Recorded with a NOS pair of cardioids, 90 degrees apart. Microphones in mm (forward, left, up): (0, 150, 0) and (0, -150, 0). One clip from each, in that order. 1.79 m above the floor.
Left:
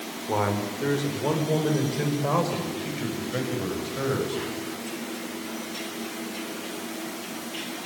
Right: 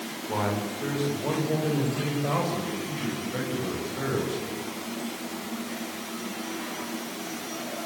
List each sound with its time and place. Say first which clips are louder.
0.3 s a man speaking: left 3 dB; 35° left, 7 m; by 4.4 s 30° left, 11 m